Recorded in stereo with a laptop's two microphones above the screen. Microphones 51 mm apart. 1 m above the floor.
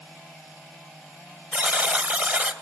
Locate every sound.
1.5 s a buzzer: 45° right (ahead or behind), 3 m